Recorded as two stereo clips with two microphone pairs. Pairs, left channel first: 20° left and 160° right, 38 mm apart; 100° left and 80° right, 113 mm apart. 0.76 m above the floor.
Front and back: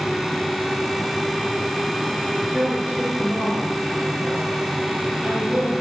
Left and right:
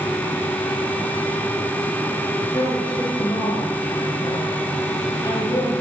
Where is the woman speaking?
145° left, 6 m.